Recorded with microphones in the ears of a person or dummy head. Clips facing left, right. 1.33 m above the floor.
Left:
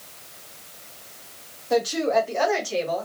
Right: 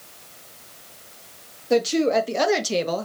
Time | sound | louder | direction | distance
1.7 | a woman speaking | right 2 dB | 30° right (ahead or behind) | 0.9 m